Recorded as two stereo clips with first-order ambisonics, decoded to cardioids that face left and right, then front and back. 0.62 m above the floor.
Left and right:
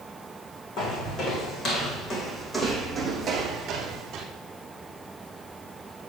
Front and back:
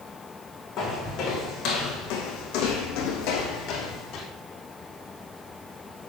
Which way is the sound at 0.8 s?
45° left.